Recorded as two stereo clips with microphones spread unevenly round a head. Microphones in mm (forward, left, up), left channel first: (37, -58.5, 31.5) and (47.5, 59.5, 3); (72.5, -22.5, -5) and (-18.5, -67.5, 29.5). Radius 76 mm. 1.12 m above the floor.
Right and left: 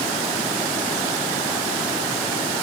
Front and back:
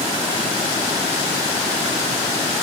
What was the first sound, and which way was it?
Only background noise.